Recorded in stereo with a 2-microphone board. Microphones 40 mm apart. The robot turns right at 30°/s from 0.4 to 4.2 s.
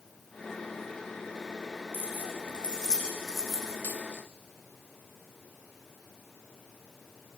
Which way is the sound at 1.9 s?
45° left (ahead or behind).